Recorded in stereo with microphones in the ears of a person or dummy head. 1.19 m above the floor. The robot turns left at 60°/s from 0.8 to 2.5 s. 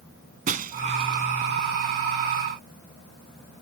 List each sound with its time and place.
0.5 s breaking glass: 40° right (ahead or behind); by 1.3 s 15° right (ahead or behind)